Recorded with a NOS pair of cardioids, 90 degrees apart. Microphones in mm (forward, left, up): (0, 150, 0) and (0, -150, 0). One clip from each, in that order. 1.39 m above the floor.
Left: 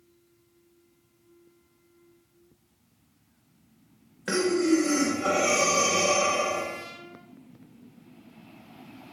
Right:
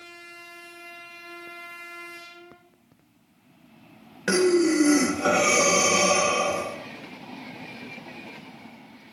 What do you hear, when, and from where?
4.3 s breathing: 35° right, 0.9 m